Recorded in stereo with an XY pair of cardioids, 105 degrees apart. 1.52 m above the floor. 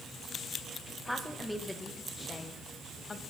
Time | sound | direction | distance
1.1 | a woman speaking | straight ahead | 1.9 m